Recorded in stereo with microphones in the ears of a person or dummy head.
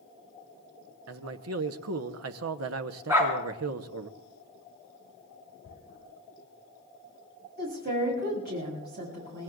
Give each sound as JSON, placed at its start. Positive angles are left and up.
{"t": 1.1, "sound": "a man speaking", "side_deg": -60, "distance_m": 0.9}
{"t": 3.1, "sound": "a dog barking", "side_deg": -15, "distance_m": 3.5}
{"t": 5.6, "sound": "tearing paper", "side_deg": 60, "distance_m": 7.5}
{"t": 7.6, "sound": "a woman speaking", "side_deg": -45, "distance_m": 6.5}